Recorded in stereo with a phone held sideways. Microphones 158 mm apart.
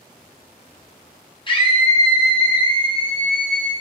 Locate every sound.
1.5 s a scream: 35° left (ahead or behind), 0.7 m